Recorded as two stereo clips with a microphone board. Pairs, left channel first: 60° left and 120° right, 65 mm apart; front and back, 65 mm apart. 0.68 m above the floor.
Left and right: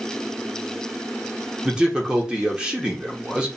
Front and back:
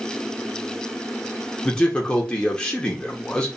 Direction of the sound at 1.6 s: 60° right.